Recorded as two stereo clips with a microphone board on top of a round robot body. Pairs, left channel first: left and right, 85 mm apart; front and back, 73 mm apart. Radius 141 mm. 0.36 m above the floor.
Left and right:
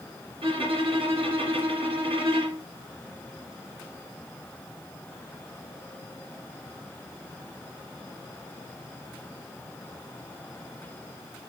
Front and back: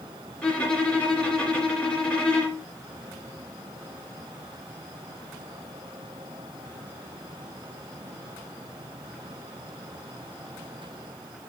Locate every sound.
0.4 s a violin: 75° right, 2.5 m